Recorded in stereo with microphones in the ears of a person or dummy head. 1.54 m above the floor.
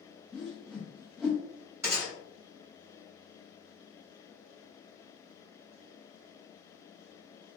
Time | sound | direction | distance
0.3 | a whoosh | centre (ahead or behind) | 0.5 m
1.8 | a gunshot | 15° right (ahead or behind) | 1.4 m